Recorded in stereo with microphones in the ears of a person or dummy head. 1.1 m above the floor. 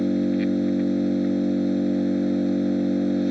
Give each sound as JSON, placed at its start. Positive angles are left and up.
{"t": 0.0, "sound": "an engine running", "side_deg": -5}